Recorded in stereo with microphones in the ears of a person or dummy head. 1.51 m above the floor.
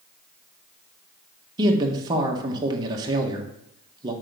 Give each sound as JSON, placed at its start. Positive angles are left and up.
{"t": 1.6, "sound": "a man speaking", "side_deg": -25, "distance_m": 1.3}